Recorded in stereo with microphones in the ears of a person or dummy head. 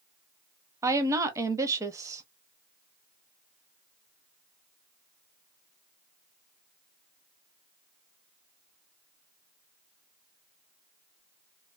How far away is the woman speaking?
About 0.6 m.